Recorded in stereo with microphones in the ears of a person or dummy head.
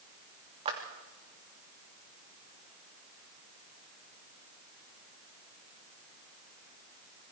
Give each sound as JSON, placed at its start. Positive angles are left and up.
{"t": 0.7, "sound": "a clap", "side_deg": -30, "distance_m": 3.0}